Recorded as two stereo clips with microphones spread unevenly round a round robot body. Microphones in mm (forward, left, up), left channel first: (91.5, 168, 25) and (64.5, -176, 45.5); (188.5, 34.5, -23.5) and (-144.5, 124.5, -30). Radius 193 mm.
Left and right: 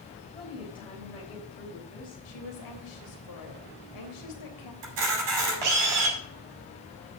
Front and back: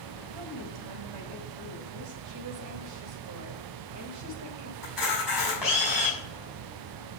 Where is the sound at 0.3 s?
165° left, 4 m.